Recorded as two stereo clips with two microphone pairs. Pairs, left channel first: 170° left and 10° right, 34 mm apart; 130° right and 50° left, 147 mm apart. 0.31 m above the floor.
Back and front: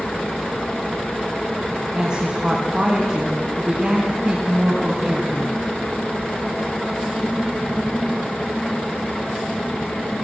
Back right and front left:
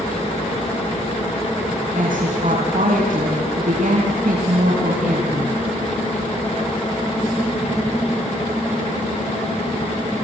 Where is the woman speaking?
50° left, 4 m.